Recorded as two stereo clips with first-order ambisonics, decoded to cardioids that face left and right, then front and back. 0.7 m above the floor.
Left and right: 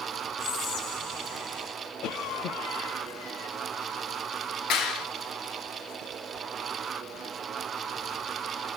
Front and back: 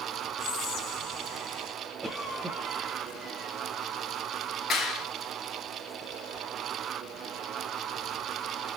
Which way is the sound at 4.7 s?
60° left.